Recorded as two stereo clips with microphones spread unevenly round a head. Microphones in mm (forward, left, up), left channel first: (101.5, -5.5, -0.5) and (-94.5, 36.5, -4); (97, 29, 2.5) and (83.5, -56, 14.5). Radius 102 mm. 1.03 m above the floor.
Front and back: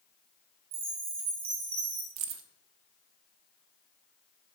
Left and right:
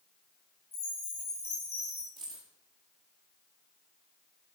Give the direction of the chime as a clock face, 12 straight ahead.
8 o'clock.